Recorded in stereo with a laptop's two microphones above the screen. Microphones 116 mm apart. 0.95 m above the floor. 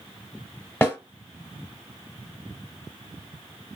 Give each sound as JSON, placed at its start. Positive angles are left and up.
{"t": 0.8, "sound": "a snare drum", "side_deg": 20, "distance_m": 1.1}